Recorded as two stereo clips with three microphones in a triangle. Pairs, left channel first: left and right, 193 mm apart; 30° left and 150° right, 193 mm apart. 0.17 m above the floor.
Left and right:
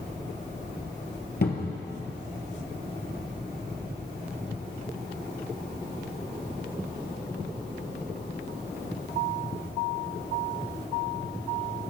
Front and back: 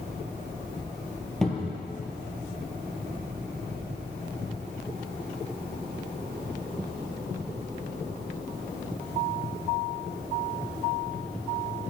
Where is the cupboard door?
120° left, 1.2 m.